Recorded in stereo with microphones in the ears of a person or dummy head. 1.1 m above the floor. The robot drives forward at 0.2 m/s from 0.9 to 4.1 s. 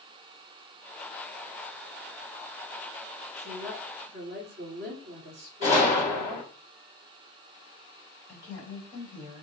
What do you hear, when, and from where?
3.4 s a woman speaking: 55° right (ahead or behind), 1.1 m; by 6.5 s 50° right (ahead or behind), 1.2 m
5.6 s a gunshot: 40° left (ahead or behind), 2.5 m
8.3 s a woman speaking: 20° left (ahead or behind), 1.8 m